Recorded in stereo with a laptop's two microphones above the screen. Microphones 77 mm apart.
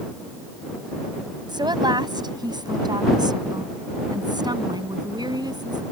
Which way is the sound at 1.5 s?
70° right (ahead or behind).